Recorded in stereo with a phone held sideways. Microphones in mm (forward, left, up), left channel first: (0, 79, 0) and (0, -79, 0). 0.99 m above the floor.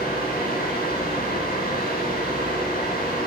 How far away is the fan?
About 10 m.